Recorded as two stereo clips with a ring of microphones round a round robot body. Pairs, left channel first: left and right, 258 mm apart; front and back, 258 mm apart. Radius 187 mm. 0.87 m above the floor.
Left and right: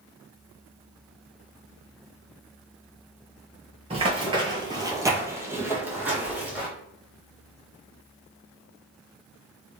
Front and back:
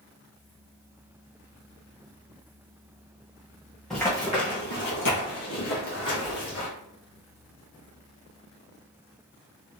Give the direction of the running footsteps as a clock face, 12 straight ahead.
3 o'clock.